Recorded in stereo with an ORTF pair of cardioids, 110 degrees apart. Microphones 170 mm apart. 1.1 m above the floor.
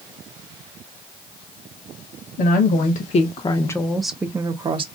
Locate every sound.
2.4 s a woman speaking: 60° left, 1.2 m; by 4.8 s 35° right, 1.0 m